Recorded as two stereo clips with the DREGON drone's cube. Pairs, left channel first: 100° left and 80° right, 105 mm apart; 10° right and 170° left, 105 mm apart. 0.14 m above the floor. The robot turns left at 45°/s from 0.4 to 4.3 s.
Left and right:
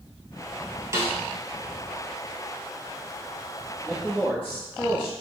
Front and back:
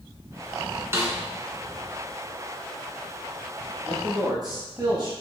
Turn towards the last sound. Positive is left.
turn(degrees=155)